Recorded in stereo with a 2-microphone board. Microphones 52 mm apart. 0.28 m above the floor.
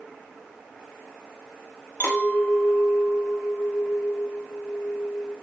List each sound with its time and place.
2.0 s a clink: 25° left (ahead or behind), 1.0 m